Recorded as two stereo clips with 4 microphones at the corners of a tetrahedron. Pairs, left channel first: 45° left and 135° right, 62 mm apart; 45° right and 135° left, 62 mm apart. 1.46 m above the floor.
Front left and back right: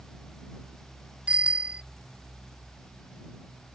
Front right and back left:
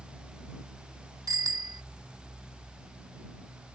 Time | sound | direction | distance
1.3 | a bicycle bell | 155° left | ?